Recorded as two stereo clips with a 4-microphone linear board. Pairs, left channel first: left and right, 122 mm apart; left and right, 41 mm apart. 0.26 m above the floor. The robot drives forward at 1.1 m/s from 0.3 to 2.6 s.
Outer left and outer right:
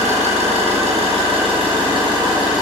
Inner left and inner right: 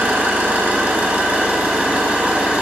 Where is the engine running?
65° right (ahead or behind), 2.5 m; by 2.6 s 35° right (ahead or behind), 4 m.